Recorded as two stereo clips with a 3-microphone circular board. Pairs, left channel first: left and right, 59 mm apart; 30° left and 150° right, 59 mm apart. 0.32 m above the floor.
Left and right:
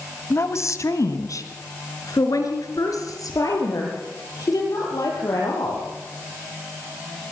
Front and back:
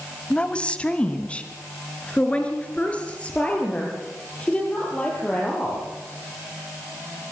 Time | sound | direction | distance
0.3 | a woman speaking | 95° left | 1.3 m